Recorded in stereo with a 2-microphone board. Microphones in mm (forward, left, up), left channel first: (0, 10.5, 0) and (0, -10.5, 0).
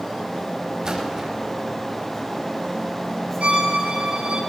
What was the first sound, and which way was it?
A splash, 25° right (ahead or behind).